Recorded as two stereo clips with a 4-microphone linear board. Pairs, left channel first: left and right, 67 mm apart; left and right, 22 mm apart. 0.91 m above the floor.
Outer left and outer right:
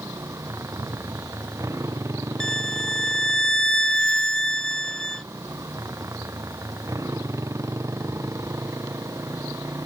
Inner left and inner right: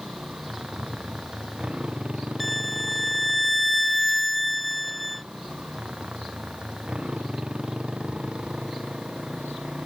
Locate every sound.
0.0 s a motorcycle: 45° right (ahead or behind)
2.4 s a violin: 10° left (ahead or behind)